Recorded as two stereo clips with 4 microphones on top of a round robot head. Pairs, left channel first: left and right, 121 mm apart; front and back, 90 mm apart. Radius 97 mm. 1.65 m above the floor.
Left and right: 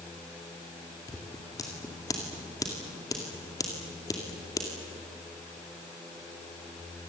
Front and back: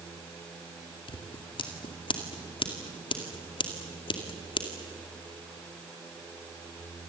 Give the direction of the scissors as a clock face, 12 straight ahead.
11 o'clock.